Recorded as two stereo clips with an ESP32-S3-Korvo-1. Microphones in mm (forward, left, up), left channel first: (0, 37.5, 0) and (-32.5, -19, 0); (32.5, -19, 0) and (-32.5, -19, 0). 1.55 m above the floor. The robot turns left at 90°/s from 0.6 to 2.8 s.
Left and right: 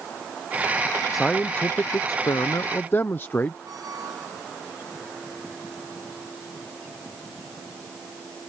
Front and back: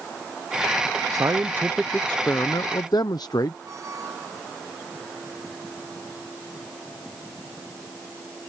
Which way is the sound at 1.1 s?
155° left.